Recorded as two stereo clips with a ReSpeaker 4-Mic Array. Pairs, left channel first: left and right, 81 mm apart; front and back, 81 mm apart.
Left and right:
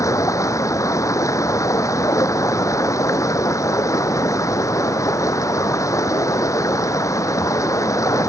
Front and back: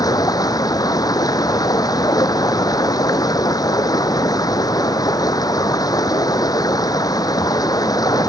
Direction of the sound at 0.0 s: 40° left.